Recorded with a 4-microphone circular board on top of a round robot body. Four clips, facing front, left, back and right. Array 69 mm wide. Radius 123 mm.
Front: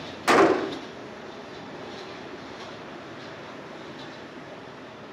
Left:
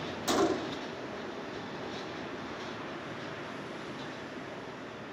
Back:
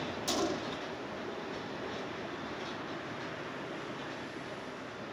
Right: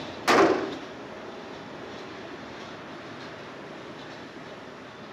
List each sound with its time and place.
0.3 s a gunshot: 30° right